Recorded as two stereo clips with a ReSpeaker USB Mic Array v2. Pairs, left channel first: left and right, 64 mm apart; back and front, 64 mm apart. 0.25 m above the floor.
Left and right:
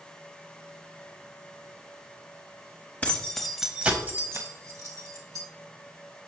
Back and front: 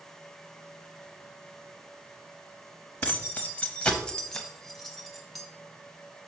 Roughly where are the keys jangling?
Behind left.